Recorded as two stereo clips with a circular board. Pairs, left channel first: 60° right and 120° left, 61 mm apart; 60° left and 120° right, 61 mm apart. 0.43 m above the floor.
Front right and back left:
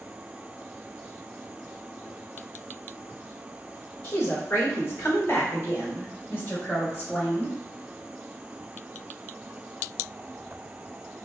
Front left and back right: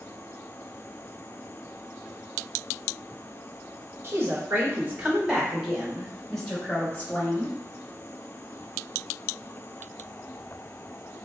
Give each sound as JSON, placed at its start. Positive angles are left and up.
{"t": 4.0, "sound": "a woman speaking", "azimuth_deg": -85, "distance_m": 1.6}